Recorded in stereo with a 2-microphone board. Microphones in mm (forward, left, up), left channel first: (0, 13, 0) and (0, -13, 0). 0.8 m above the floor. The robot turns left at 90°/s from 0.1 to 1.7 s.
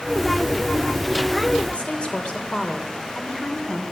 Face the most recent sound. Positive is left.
turn(degrees=30)  # may be behind; listen again after turning